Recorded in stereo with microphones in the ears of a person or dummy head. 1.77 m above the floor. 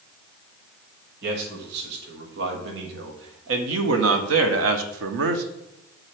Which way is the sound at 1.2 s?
60° right (ahead or behind).